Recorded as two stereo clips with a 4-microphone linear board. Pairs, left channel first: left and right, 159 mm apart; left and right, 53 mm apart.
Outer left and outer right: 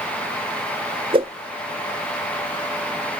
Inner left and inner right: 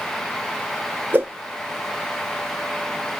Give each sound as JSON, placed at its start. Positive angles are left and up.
{"t": 1.1, "sound": "a whoosh", "side_deg": -35, "distance_m": 0.7}